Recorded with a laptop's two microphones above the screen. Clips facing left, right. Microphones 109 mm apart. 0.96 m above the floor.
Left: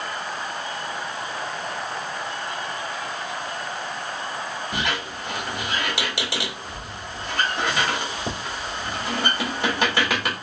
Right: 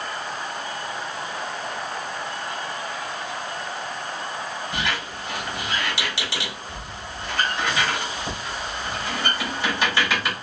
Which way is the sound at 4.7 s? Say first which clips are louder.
Left 1 dB; 55° left (ahead or behind).